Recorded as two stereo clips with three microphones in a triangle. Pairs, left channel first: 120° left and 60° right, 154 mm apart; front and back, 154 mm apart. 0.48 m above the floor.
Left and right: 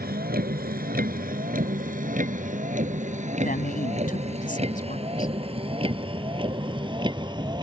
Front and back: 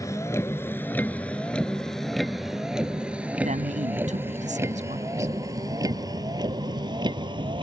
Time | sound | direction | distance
0.0 | a vehicle | 70° right | ?
3.4 | a man speaking | 145° left | ?